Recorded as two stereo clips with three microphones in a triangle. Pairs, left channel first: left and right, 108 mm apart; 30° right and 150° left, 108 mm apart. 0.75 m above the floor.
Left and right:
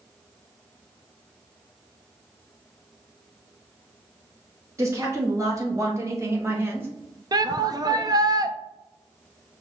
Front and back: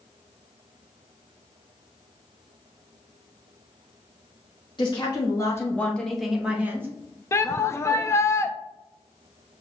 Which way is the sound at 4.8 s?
35° right.